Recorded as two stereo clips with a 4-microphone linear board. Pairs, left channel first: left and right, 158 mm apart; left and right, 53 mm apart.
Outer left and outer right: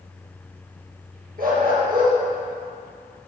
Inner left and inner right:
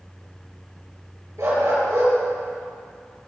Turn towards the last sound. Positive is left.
turn(degrees=-70)  # may be behind; listen again after turning